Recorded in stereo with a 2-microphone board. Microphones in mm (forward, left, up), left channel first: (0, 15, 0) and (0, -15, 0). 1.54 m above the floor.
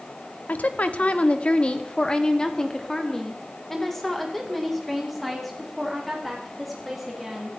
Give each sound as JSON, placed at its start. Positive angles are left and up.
{"t": 0.5, "sound": "a woman speaking", "side_deg": 70, "distance_m": 1.0}